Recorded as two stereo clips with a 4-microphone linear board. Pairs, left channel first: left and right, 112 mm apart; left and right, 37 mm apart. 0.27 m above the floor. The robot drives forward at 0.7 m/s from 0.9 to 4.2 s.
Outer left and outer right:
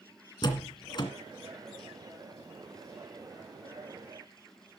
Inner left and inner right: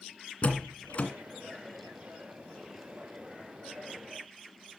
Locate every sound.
0.4 s a door slam: 40° left (ahead or behind), 2.0 m